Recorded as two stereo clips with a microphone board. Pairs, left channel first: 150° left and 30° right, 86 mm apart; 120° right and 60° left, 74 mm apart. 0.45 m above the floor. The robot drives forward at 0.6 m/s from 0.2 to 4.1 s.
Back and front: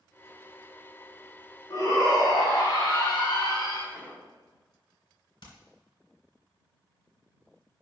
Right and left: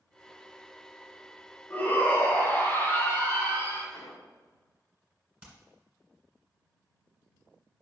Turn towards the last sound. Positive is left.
turn(degrees=135)